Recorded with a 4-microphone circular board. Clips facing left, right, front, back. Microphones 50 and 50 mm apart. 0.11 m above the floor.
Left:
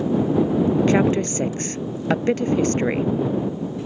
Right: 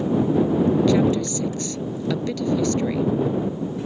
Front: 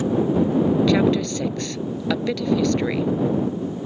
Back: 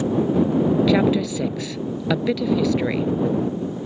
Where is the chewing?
I don't hear chewing.